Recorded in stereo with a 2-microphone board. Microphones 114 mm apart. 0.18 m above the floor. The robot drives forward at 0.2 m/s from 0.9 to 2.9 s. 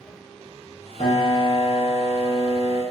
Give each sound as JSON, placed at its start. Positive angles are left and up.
{"t": 1.0, "sound": "a piano", "side_deg": 45, "distance_m": 0.6}